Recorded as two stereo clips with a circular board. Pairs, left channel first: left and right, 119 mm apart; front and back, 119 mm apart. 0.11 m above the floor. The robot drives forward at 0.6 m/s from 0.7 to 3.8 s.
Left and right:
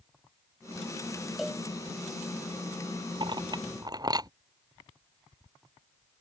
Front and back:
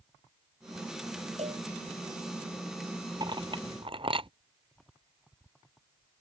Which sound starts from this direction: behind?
A cowbell, at 1.4 s.